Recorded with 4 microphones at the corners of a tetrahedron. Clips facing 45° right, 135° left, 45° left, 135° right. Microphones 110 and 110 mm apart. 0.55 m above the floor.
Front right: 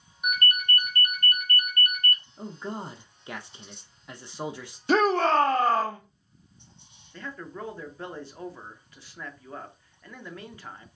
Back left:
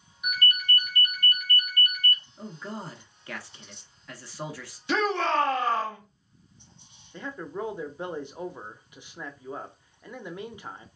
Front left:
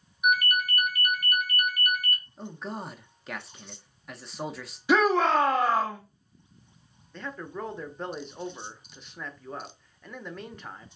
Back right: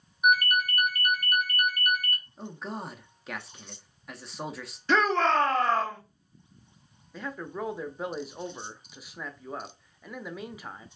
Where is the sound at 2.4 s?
45° right, 0.6 m.